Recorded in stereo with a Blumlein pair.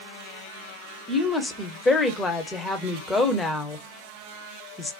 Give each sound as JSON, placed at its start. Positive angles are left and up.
{"t": 1.1, "sound": "a woman speaking", "azimuth_deg": 15, "distance_m": 0.7}